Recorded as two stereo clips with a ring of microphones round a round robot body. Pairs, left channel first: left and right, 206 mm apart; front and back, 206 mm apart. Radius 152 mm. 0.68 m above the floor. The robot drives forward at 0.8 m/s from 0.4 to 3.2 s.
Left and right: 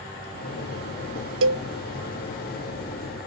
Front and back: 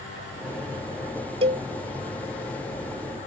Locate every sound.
1.4 s a cowbell: 110° right; by 1.6 s 120° right